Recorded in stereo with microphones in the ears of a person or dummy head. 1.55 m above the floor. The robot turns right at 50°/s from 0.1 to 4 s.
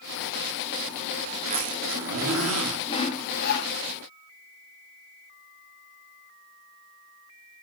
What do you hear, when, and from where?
1.3 s a zipper: 145° right, 1.7 m; by 2.8 s 75° right, 1.7 m
2.9 s sawing: 30° left, 1.1 m; by 3.7 s 70° left, 1.1 m